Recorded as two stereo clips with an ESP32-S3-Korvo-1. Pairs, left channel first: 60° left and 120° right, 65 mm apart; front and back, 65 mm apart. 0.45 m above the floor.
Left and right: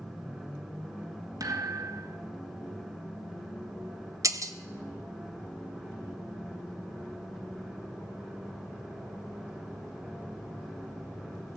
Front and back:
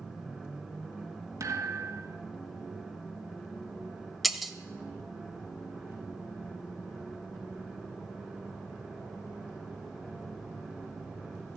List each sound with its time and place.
1.4 s a thud: 145° right, 1.6 m
4.2 s breaking glass: 90° right, 0.9 m